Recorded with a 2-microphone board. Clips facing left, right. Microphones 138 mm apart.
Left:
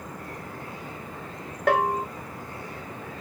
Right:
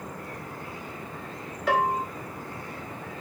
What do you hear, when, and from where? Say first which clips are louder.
1.7 s a bell: left 2 dB; 55° left (ahead or behind), 1.0 m